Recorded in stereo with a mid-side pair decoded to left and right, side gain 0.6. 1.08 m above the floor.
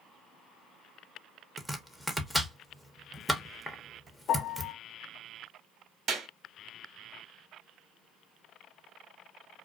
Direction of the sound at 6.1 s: 55° right.